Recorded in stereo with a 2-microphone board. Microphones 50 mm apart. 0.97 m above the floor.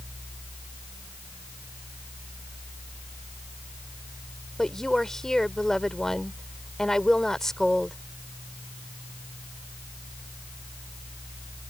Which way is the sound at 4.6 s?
10° left (ahead or behind).